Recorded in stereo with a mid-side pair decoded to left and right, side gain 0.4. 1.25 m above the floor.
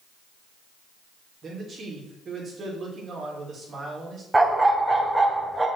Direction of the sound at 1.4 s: 50° right.